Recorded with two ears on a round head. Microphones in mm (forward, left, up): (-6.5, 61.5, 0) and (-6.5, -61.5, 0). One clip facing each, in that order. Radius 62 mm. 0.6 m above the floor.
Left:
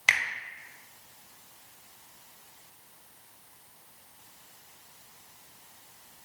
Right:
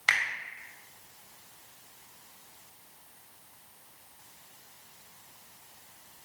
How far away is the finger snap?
About 0.8 m.